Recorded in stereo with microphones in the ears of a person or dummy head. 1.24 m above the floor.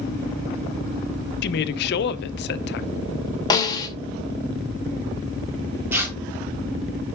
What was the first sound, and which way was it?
A woman speaking, 65° left (ahead or behind).